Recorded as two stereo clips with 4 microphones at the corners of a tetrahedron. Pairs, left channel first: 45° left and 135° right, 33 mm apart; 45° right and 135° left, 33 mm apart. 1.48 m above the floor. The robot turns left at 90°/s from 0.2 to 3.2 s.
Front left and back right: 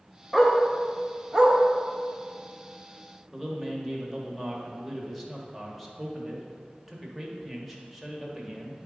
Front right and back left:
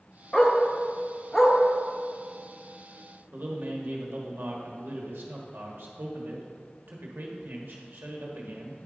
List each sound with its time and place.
0.3 s a dog barking: 40° right, 1.1 m; by 1.6 s 150° right, 1.1 m
3.3 s a man speaking: 135° left, 1.4 m